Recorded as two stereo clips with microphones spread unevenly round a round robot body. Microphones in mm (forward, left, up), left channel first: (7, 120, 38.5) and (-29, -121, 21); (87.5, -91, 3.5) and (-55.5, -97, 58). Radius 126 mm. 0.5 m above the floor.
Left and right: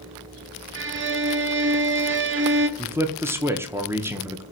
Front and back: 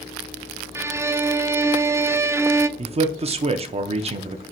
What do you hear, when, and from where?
0.8 s a violin: 90° right, 0.6 m
2.8 s a man speaking: 150° right, 0.7 m